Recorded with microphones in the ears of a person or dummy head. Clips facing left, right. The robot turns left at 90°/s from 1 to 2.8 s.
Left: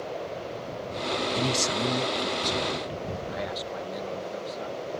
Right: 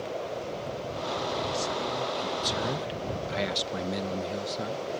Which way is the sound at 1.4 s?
95° left.